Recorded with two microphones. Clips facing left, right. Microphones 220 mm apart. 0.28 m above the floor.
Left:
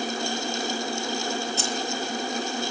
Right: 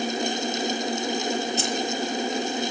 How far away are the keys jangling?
About 5 m.